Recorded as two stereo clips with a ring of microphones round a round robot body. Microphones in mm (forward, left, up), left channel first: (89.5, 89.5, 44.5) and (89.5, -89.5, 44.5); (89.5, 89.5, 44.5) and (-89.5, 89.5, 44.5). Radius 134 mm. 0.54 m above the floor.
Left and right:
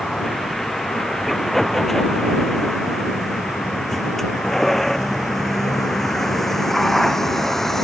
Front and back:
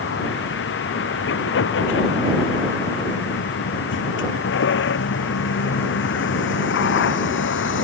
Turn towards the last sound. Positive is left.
turn(degrees=0)